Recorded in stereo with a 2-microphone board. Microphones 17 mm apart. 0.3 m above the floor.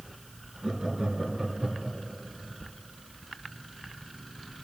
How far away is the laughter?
About 3.5 m.